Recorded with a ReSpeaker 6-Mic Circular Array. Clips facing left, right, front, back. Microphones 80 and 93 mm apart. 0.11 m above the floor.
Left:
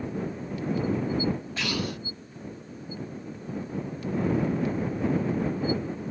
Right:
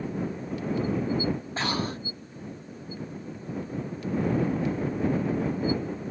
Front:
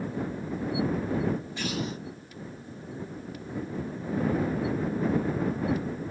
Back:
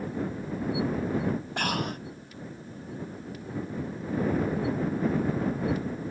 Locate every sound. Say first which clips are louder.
1.6 s breathing: right 2 dB, back 2 dB; 145° right